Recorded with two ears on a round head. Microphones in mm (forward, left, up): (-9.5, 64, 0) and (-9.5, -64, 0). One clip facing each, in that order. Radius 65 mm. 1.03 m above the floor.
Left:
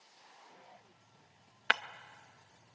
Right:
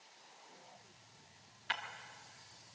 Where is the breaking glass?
70° left (ahead or behind), 0.6 m.